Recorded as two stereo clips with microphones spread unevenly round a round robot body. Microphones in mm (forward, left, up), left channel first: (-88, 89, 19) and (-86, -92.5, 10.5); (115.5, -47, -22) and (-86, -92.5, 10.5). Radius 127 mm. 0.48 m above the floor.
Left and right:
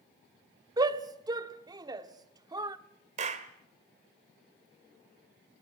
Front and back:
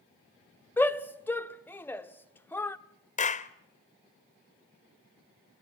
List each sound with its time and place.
0.8 s a shout: 45° right, 0.8 m
3.2 s a clap: 35° right, 1.1 m